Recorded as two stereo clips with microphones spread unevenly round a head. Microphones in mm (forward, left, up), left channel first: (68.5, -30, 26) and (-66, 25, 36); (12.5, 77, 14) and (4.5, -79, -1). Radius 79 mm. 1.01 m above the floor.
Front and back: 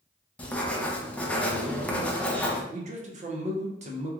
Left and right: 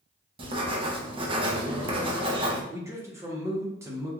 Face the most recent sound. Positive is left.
turn(degrees=-160)